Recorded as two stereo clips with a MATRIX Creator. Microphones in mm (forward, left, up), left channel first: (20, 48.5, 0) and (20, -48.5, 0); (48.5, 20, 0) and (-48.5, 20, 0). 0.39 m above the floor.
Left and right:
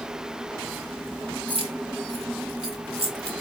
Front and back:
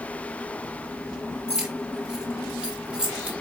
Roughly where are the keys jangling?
Right.